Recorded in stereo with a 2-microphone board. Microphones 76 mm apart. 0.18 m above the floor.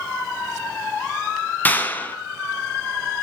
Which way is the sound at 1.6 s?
25° left (ahead or behind).